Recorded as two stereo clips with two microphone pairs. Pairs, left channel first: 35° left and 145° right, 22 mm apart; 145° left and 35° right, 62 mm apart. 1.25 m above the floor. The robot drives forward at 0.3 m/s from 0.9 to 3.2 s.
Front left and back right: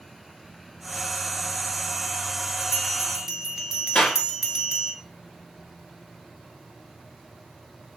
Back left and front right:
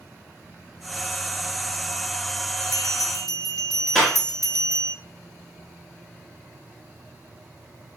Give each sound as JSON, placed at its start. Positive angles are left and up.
{"t": 2.6, "sound": "a bell", "azimuth_deg": 130, "distance_m": 0.6}
{"t": 4.0, "sound": "a clap", "azimuth_deg": 70, "distance_m": 2.0}